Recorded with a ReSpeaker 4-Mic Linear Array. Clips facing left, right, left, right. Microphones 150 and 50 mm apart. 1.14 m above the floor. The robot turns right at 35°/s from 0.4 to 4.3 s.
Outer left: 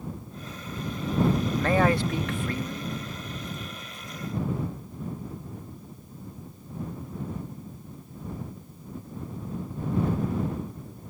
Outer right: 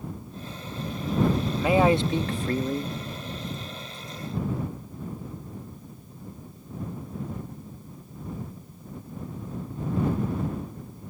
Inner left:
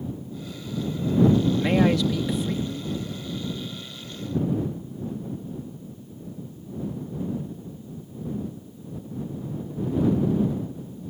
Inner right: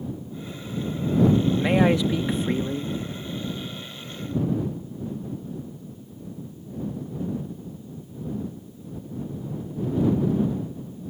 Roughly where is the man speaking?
Behind.